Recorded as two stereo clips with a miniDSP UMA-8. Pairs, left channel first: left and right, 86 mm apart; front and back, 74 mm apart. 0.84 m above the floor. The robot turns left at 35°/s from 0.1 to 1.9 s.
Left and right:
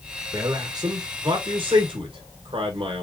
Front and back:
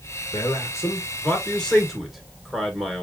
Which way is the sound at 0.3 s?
35° right.